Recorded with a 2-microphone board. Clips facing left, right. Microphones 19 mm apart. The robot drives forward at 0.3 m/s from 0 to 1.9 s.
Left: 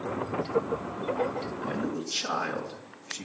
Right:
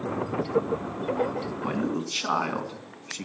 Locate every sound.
1.6 s a man speaking: 55° right (ahead or behind), 3 m